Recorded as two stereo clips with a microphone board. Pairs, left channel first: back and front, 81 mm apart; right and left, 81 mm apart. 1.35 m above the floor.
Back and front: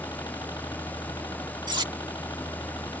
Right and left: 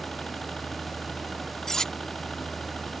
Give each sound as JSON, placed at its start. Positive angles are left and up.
{"t": 0.0, "sound": "a helicopter", "azimuth_deg": -170}
{"t": 1.7, "sound": "cutlery clinking", "azimuth_deg": -5}